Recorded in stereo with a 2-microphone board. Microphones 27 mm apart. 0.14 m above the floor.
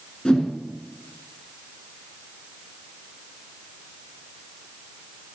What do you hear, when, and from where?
0.2 s a whoosh: 35° left (ahead or behind), 1.2 m